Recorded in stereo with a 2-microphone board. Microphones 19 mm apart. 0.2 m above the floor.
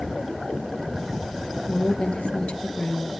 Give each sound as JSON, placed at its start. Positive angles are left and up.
{"t": 1.7, "sound": "a woman speaking", "side_deg": 70, "distance_m": 3.0}